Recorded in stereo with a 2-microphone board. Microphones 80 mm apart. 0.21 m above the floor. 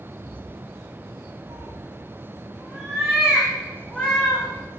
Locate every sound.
1.5 s a cat meowing: 40° right (ahead or behind), 1.9 m; by 4.5 s 10° left (ahead or behind), 4.5 m